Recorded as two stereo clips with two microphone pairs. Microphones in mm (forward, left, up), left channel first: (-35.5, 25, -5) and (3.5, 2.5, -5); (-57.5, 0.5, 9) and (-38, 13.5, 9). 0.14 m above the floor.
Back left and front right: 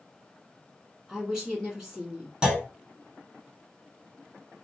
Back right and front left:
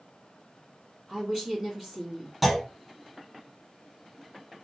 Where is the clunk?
60° right, 1.0 m.